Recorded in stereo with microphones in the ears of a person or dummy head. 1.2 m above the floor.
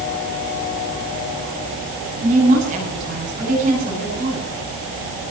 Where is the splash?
No splash in this recording.